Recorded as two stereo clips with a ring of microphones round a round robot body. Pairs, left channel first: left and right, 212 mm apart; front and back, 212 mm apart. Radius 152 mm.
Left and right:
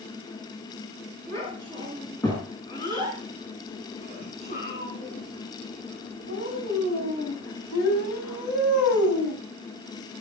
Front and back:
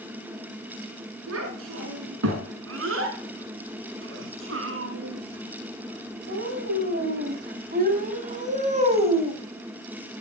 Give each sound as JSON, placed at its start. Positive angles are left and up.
{"t": 1.3, "sound": "a child speaking", "azimuth_deg": 170, "distance_m": 5.5}